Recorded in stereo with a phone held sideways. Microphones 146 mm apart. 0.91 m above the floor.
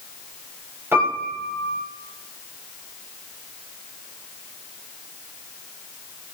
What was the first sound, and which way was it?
A piano, 15° right (ahead or behind).